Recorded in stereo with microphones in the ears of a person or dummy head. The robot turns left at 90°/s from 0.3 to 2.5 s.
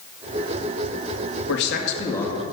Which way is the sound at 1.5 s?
80° left.